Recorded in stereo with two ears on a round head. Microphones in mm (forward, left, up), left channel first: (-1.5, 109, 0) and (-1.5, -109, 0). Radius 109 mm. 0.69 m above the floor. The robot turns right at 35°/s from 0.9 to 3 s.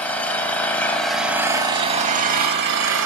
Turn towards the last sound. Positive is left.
turn(degrees=-115)